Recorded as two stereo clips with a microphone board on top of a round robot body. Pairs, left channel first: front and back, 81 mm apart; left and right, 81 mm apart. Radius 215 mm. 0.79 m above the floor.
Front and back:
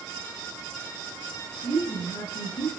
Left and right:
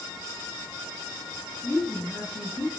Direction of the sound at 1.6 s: 15° left.